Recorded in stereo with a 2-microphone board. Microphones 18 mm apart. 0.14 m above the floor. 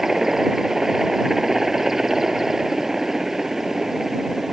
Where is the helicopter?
30° right (ahead or behind).